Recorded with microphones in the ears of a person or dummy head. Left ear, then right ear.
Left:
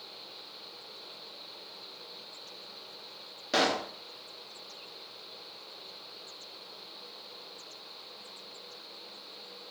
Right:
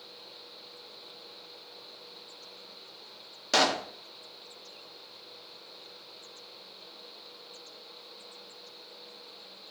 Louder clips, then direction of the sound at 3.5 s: Right 2 dB; 25° right (ahead or behind).